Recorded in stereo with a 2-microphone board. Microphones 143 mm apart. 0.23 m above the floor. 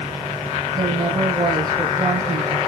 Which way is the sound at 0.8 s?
30° right (ahead or behind).